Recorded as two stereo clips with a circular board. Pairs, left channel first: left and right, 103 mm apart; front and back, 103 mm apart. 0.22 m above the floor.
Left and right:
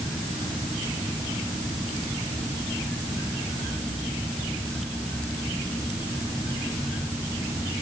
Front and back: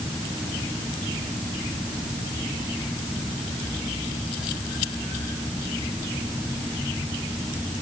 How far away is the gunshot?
I don't hear a gunshot.